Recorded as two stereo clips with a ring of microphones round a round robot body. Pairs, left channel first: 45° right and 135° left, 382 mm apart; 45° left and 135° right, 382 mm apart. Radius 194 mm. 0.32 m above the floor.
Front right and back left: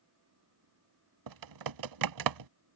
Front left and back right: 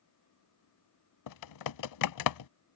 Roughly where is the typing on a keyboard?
Left.